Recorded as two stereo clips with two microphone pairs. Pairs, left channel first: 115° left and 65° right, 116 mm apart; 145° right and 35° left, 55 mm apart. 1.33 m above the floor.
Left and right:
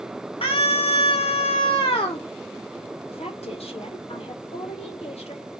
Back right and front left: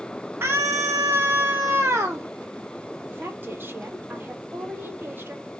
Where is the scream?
80° left, 0.8 m.